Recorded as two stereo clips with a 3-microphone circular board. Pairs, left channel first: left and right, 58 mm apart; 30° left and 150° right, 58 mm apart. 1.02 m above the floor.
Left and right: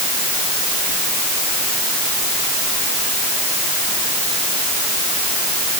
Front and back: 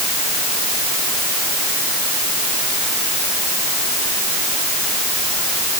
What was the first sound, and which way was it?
Only background noise.